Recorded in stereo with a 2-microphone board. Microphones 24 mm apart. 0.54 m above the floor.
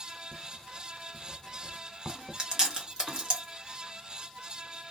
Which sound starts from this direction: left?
Writing, at 0.3 s.